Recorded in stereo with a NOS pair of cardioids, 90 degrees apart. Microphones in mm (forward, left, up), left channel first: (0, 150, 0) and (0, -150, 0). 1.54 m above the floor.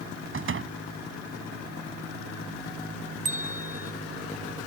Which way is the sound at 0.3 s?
45° right.